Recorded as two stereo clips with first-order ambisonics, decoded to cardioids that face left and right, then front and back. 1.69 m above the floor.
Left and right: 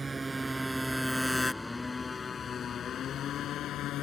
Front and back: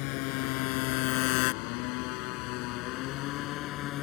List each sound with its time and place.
0.0 s a motorcycle: 15° right; by 4.0 s 45° left